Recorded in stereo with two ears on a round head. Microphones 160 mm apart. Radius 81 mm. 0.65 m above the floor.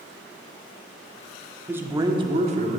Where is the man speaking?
10° right (ahead or behind), 1.2 m; by 2.8 s 45° right (ahead or behind), 1.4 m.